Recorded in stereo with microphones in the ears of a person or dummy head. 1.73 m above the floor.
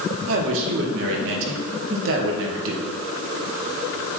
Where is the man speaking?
70° right (ahead or behind), 1.8 m.